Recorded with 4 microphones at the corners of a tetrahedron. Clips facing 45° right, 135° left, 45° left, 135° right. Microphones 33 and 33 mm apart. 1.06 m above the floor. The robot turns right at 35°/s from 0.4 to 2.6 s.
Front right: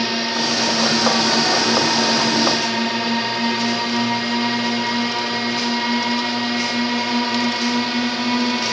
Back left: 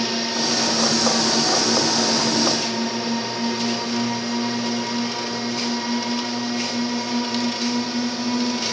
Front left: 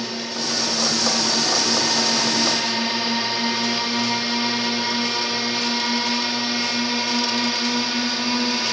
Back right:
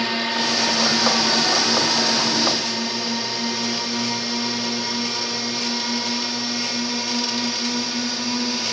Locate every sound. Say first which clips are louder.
0.0 s a drone: front right 3 dB, back right 5 dB; 100° right; by 8.7 s 20° right